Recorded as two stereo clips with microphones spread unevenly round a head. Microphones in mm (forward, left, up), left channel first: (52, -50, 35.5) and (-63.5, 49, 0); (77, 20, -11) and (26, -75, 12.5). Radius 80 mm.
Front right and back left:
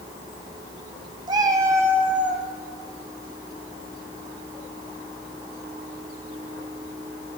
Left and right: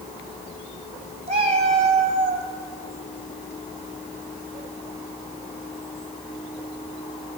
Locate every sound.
1.3 s a cat meowing: 150° right, 2 m; by 2.5 s 130° right, 2 m